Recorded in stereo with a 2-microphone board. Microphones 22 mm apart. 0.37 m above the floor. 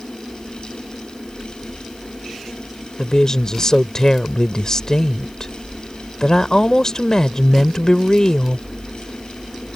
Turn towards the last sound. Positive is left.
turn(degrees=35)  # may be behind; listen again after turning